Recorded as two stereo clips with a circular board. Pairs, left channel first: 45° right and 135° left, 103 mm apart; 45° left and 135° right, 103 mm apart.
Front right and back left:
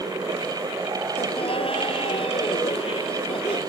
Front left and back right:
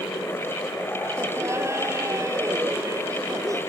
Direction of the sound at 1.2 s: 70° right.